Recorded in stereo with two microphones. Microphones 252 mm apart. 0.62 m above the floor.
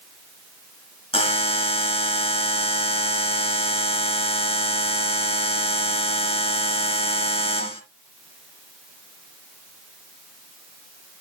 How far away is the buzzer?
About 2.5 m.